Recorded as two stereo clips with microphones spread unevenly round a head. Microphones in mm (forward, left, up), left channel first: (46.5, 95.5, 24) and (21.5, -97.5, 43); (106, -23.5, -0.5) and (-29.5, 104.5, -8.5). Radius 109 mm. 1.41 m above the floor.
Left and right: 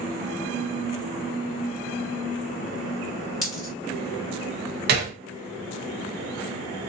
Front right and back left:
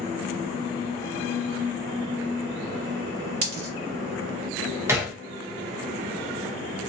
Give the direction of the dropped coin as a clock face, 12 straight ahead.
7 o'clock.